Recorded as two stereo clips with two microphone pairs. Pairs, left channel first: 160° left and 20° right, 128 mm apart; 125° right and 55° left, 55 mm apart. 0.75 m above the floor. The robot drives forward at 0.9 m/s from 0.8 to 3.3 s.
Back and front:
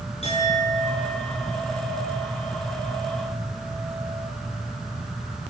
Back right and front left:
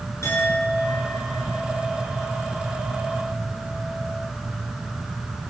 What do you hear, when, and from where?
0.2 s a clink: 160° right, 9 m; by 4.3 s 165° right, 11 m